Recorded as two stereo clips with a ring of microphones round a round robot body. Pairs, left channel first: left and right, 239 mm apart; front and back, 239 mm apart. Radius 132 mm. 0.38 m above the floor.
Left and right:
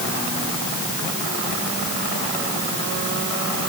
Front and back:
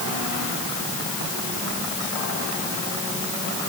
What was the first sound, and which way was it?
Only background noise.